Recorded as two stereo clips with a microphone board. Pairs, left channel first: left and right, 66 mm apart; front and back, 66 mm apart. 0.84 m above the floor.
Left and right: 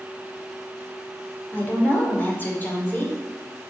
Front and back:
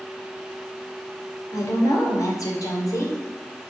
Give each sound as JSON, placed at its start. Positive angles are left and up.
{"t": 1.5, "sound": "a woman speaking", "azimuth_deg": 25, "distance_m": 2.0}